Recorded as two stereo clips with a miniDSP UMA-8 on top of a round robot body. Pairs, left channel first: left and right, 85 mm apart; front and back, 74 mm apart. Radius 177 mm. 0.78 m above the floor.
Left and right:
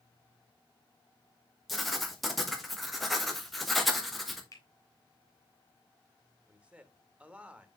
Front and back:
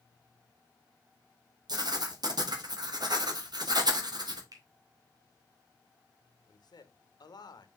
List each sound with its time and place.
1.7 s writing: straight behind, 1.7 m
4.5 s a finger snap: 140° left, 1.9 m
6.5 s a man speaking: 15° right, 1.3 m